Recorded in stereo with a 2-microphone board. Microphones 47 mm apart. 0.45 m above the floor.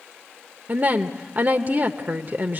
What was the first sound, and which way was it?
A woman speaking, 40° right (ahead or behind).